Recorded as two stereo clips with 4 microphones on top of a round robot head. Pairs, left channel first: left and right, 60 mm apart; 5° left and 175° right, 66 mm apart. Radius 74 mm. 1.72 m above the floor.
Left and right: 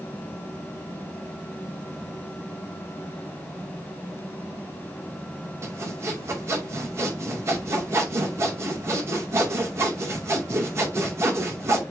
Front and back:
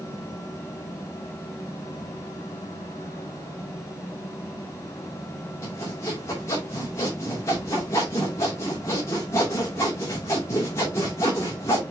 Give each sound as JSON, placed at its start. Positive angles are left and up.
{"t": 5.6, "sound": "sawing", "azimuth_deg": -50, "distance_m": 2.5}